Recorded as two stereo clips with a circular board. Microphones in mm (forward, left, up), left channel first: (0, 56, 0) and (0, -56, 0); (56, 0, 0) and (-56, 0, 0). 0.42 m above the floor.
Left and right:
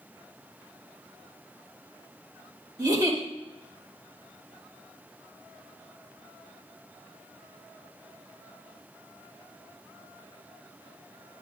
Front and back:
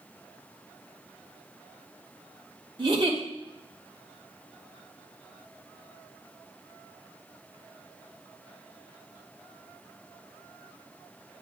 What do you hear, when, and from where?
2.8 s a giggle: 140° right, 2.5 m